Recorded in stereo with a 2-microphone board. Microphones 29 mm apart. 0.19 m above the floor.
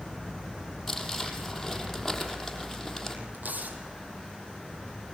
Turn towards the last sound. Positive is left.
turn(degrees=-70)  # may be behind; listen again after turning